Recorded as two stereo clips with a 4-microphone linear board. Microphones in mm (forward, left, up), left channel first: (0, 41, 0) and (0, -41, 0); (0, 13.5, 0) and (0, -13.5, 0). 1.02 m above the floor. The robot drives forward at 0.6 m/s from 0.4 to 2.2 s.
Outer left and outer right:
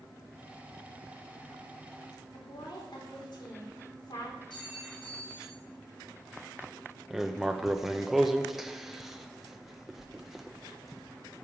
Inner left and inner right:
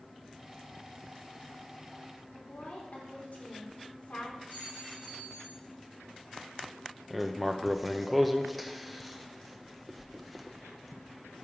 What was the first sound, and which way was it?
A woman speaking, 70° left (ahead or behind).